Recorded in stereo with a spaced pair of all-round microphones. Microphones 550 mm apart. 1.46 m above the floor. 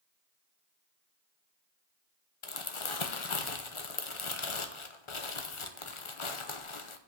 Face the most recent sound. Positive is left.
turn(degrees=65)  # may be behind; listen again after turning